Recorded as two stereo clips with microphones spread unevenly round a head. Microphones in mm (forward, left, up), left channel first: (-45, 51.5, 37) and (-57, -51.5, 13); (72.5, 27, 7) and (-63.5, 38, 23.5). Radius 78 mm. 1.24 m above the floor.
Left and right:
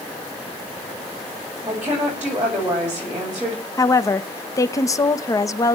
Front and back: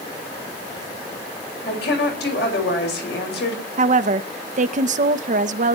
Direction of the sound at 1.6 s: 15° right.